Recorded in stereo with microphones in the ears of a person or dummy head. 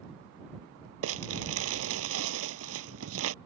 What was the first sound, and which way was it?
Crumpling, 75° right (ahead or behind).